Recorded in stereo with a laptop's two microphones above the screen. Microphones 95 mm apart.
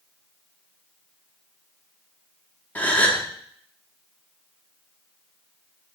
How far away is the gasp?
About 0.8 m.